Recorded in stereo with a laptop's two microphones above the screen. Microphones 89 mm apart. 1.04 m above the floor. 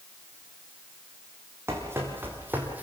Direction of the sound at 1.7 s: 30° right (ahead or behind).